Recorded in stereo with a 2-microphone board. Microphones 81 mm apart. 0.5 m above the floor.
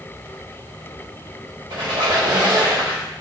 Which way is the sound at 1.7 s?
70° right (ahead or behind).